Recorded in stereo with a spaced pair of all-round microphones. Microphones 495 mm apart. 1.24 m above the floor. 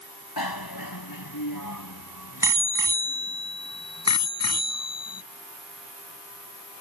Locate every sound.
0.4 s a bicycle bell: 50° left (ahead or behind); by 5.2 s 30° left (ahead or behind)